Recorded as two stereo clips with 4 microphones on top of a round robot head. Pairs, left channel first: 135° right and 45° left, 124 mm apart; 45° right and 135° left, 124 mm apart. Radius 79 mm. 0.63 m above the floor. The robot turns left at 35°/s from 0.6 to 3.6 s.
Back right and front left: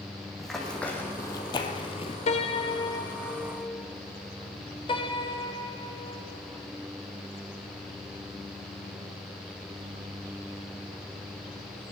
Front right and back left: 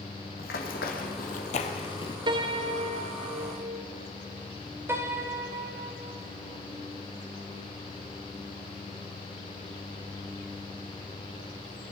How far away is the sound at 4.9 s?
About 1.5 m.